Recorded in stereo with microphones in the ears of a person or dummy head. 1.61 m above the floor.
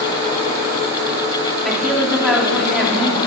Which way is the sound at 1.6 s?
Centre (ahead or behind).